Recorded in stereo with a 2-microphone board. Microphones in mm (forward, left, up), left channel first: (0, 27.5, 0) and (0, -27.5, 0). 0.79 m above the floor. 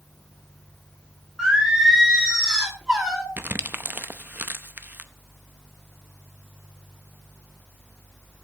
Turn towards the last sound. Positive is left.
turn(degrees=-40)  # may be behind; listen again after turning